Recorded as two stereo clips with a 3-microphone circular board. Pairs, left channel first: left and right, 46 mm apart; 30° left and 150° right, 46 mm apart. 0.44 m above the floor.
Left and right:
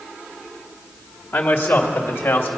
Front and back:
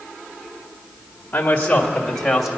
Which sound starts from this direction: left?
A man speaking, at 1.3 s.